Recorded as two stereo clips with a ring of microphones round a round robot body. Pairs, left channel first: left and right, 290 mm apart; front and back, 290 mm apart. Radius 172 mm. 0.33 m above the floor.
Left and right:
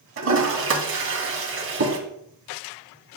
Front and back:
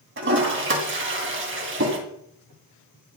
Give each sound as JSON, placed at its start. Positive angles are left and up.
{"t": 0.2, "sound": "a toilet flushing", "azimuth_deg": -135, "distance_m": 2.0}